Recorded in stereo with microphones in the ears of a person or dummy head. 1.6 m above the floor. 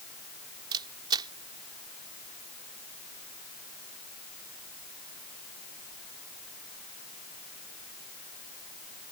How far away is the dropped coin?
No dropped coin in this recording.